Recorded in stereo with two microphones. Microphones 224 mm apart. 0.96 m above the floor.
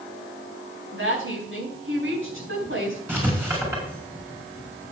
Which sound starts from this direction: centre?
Writing, at 3.1 s.